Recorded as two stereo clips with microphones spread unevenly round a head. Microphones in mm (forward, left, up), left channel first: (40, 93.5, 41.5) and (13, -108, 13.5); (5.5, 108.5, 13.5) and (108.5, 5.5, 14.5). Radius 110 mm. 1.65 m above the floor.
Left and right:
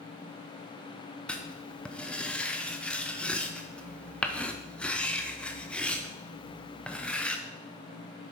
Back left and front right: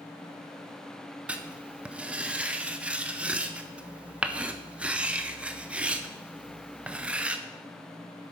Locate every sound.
1.3 s writing: 25° left, 0.6 m